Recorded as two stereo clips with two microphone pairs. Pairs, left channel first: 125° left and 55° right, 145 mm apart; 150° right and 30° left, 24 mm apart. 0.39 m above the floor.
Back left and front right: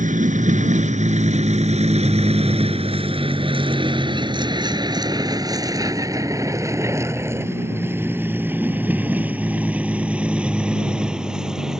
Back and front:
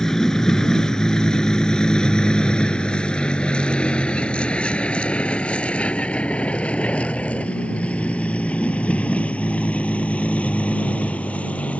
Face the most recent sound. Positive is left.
turn(degrees=-140)